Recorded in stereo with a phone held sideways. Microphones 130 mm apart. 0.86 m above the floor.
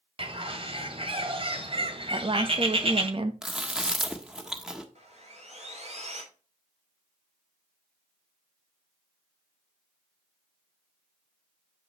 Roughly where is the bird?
Right.